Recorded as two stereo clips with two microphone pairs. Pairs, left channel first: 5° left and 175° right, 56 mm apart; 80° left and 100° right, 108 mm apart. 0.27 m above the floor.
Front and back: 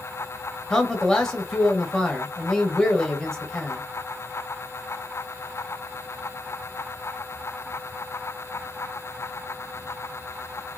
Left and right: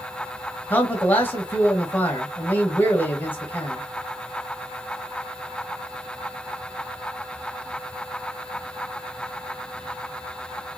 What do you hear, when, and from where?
0.7 s a man speaking: 65° left, 0.9 m